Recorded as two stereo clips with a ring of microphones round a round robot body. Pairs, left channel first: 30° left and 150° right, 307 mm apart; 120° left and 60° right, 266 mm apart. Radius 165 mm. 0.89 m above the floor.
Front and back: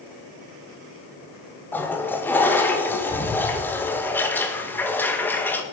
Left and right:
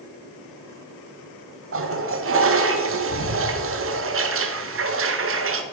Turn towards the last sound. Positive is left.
turn(degrees=-50)